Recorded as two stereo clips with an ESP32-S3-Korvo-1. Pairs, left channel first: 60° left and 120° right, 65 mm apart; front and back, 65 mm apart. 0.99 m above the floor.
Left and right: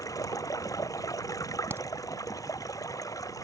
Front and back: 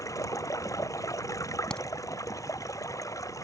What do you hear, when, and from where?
0.0 s running water: 35° left
1.7 s a crack: 75° right